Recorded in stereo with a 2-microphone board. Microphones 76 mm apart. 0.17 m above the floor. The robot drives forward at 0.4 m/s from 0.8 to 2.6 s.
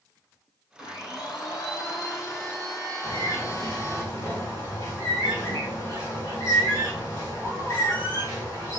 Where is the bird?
35° left (ahead or behind), 1.9 m.